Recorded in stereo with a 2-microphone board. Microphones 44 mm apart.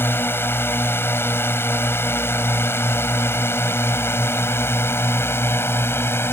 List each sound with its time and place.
0.0 s a drone: 60° left (ahead or behind); by 6.3 s 70° left (ahead or behind)